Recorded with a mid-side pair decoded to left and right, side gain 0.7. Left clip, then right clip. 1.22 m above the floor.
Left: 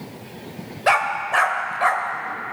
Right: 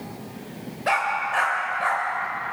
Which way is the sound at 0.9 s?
30° left.